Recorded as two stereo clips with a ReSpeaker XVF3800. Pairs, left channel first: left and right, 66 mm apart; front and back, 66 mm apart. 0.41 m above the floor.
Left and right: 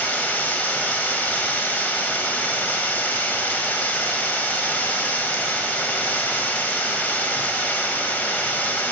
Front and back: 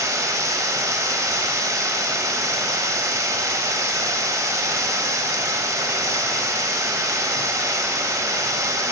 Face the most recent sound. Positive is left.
turn(degrees=150)